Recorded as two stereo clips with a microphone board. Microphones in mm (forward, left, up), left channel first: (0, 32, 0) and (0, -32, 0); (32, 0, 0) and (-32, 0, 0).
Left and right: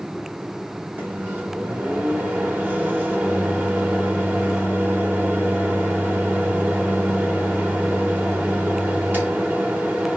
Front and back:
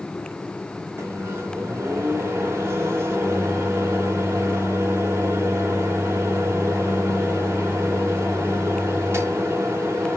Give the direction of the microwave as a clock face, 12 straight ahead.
5 o'clock.